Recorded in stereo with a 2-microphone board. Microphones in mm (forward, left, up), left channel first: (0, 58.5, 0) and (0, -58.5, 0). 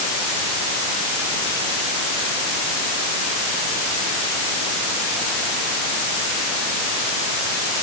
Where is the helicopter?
No helicopter in this recording.